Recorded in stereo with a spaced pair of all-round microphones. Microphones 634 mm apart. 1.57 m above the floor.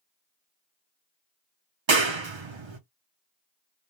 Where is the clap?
50° right (ahead or behind), 0.7 m.